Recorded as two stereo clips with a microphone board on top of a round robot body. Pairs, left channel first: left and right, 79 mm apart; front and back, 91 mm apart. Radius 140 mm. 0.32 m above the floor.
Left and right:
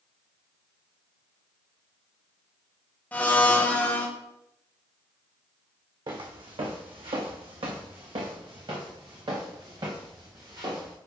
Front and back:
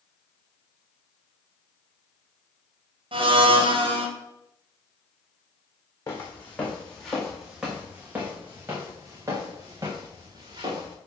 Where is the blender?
160° left, 1.4 m.